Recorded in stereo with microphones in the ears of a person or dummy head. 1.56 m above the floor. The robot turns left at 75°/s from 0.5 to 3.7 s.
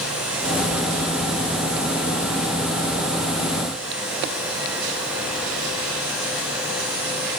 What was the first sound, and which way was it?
Only background noise.